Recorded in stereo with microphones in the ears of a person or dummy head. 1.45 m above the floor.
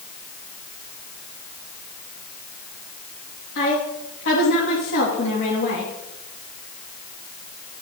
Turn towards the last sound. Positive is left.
turn(degrees=60)  # may be behind; listen again after turning